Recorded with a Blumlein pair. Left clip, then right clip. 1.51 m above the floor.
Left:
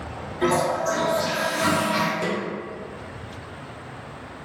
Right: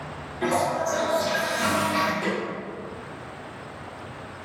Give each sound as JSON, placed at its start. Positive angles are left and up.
{"t": 0.4, "sound": "a toilet flushing", "azimuth_deg": 15, "distance_m": 1.3}
{"t": 2.2, "sound": "a snare drum", "azimuth_deg": 15, "distance_m": 1.5}